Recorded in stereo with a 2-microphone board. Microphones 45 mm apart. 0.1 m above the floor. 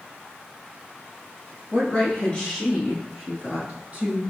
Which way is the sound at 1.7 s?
30° left (ahead or behind).